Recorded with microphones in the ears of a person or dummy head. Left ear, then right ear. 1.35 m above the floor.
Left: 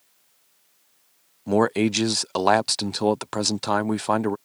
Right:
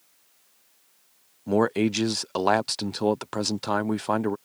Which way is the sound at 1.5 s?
10° left (ahead or behind).